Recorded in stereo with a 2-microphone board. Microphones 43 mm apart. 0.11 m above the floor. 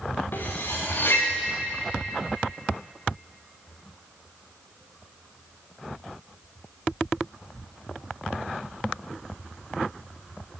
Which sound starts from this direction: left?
Cutlery clinking, at 0.3 s.